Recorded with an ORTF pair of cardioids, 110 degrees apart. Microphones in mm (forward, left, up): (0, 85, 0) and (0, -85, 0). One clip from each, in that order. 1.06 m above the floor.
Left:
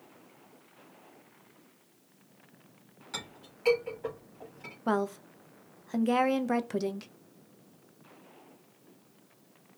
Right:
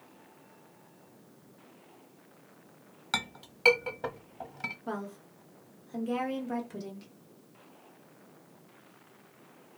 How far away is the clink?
About 0.9 m.